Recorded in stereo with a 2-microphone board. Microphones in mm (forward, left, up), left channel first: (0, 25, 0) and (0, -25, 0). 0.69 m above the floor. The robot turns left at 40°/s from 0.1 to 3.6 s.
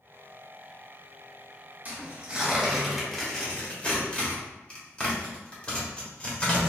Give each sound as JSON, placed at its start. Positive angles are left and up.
{"t": 1.9, "sound": "tearing paper", "side_deg": -30, "distance_m": 1.4}